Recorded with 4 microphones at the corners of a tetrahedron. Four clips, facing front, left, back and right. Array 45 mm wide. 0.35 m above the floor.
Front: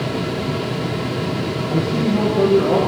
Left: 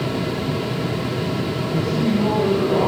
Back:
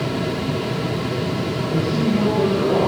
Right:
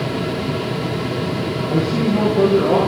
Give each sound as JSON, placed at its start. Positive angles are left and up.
{"t": 1.7, "sound": "a man speaking", "azimuth_deg": -75, "distance_m": 7.5}